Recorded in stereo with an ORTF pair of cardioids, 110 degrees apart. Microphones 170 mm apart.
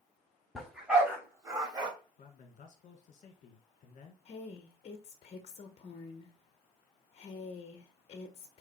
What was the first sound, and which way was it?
A dog barking, straight ahead.